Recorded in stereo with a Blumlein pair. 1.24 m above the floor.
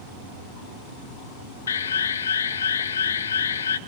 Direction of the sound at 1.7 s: 65° left.